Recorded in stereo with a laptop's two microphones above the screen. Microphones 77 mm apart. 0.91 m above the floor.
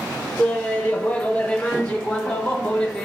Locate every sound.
0.4 s laughter: 20° left (ahead or behind), 0.8 m; by 3.1 s 10° left (ahead or behind), 1.5 m